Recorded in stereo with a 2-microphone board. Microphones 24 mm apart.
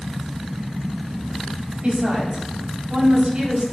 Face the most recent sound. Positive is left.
turn(degrees=-65)  # may be behind; listen again after turning